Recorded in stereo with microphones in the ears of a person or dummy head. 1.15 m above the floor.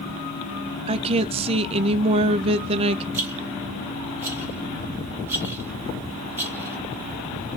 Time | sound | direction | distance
0.9 | a woman speaking | 35° right (ahead or behind) | 0.6 m
3.1 | a rattle | 15° right (ahead or behind) | 1.5 m